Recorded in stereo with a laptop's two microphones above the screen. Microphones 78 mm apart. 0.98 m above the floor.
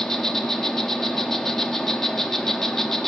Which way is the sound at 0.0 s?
5° left (ahead or behind).